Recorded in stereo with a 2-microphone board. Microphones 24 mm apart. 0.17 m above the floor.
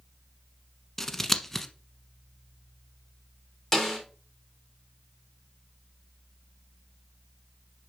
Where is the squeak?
I don't hear a squeak.